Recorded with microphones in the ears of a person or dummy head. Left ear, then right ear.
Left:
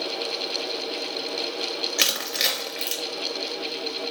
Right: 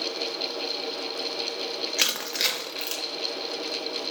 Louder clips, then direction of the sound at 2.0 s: Left 2 dB; 5° right (ahead or behind).